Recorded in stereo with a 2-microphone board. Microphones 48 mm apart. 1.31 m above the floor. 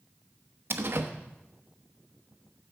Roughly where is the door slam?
Right.